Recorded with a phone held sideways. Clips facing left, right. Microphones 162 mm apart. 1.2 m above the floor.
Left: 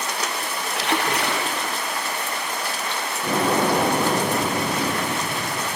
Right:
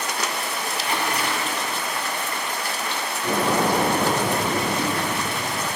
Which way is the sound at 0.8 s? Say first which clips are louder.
Left 3 dB; 75° left (ahead or behind).